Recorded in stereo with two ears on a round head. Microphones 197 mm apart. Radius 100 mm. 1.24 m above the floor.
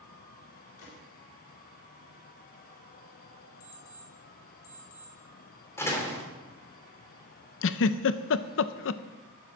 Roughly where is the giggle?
Left.